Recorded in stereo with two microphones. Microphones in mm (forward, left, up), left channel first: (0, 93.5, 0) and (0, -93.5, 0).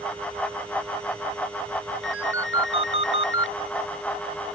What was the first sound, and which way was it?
A ringtone, 85° left.